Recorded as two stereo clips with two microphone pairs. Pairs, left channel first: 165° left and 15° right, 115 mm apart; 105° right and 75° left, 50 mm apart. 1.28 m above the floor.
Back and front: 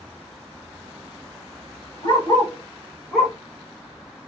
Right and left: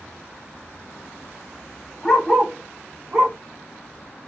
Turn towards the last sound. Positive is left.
turn(degrees=65)